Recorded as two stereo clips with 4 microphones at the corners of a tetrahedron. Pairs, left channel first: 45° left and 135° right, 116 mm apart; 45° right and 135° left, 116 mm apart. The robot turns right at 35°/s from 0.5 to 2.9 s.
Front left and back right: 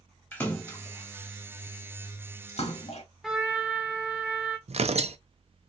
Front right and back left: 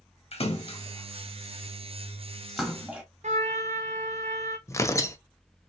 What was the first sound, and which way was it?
A splash, 30° right.